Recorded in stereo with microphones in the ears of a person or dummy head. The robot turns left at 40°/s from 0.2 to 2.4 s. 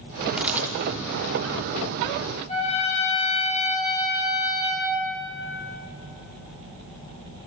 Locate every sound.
0.4 s a camera shutter: 5° right (ahead or behind), 0.8 m; by 0.7 s 15° right (ahead or behind), 0.8 m
2.5 s a trumpet: 35° left (ahead or behind), 4.5 m